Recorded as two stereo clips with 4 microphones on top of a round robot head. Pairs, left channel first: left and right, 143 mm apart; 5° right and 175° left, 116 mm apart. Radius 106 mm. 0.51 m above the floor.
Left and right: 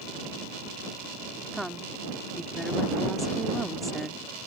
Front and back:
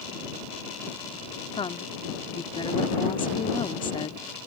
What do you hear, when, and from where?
1.5 s a woman speaking: straight ahead